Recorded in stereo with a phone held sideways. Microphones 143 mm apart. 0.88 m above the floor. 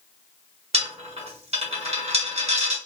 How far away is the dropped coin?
About 1.1 m.